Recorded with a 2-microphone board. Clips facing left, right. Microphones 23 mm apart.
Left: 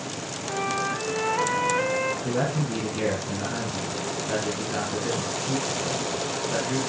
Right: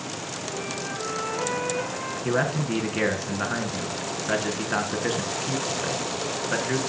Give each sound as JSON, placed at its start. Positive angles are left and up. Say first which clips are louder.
{"t": 0.5, "sound": "a flute", "louder": "left 7 dB", "side_deg": 40, "distance_m": 1.9}
{"t": 2.2, "sound": "a man speaking", "louder": "right 1 dB", "side_deg": -45, "distance_m": 3.5}